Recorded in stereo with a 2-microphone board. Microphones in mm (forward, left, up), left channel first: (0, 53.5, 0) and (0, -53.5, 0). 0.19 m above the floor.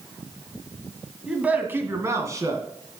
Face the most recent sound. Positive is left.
turn(degrees=-35)  # may be behind; listen again after turning